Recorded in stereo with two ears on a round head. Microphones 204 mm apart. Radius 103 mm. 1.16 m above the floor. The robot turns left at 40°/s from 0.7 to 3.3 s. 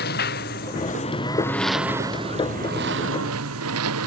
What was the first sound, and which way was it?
A lawn mower, 45° left (ahead or behind).